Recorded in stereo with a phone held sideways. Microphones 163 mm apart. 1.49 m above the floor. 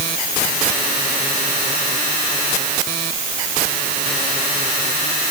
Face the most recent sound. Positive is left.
No sound to turn to.